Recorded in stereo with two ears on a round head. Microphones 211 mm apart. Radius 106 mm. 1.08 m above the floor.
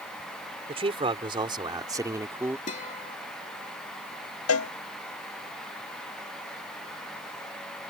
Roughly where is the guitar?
Left.